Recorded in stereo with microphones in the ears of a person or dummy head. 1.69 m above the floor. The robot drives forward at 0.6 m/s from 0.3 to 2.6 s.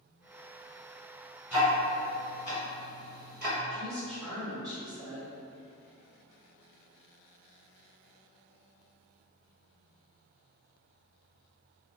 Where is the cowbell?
No cowbell in this recording.